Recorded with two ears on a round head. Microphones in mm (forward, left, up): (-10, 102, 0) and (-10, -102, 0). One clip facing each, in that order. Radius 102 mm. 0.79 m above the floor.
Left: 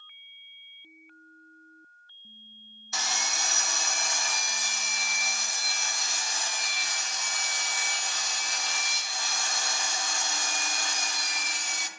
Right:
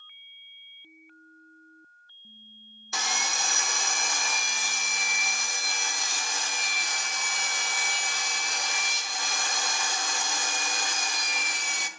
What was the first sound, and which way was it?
Sawing, 50° right (ahead or behind).